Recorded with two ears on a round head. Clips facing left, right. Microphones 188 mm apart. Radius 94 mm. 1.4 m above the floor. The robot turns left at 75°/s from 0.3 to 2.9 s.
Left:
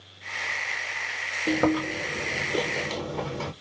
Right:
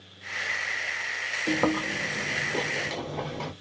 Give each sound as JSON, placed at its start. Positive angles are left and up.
{"t": 1.5, "sound": "chewing", "side_deg": 20, "distance_m": 1.1}